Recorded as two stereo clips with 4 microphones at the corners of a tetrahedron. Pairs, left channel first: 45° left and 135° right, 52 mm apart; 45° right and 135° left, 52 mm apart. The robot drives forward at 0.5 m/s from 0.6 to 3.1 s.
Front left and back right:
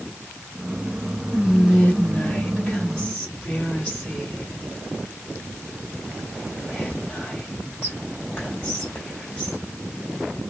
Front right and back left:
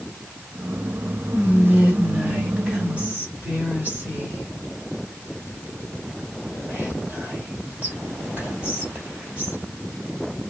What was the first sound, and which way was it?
Whispering, 55° left.